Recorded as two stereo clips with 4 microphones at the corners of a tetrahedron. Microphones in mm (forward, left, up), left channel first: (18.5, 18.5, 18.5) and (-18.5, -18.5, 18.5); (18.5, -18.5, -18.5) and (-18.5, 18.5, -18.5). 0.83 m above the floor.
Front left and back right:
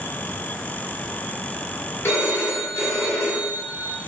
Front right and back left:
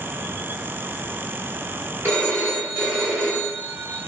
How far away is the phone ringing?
About 1.7 m.